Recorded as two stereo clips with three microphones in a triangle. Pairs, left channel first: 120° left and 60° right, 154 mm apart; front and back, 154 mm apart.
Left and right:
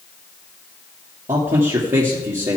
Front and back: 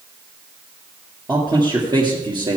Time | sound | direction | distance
1.3 | a man speaking | 125° right | 2.5 m